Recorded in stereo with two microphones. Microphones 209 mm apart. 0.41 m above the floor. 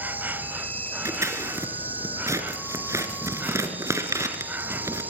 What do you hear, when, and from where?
0.0 s an insect: 10° right (ahead or behind), 0.9 m
1.1 s scissors: 15° right (ahead or behind), 3 m